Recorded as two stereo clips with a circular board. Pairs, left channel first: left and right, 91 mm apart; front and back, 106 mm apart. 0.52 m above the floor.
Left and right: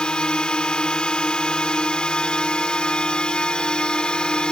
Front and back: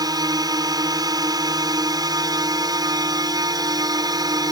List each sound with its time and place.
0.0 s a drone: 165° left